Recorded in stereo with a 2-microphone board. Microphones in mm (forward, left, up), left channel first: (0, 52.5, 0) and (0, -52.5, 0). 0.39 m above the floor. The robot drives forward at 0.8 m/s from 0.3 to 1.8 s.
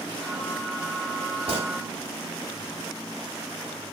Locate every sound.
1.5 s a gunshot: 65° right (ahead or behind), 1.1 m; by 1.7 s 60° right (ahead or behind), 1.2 m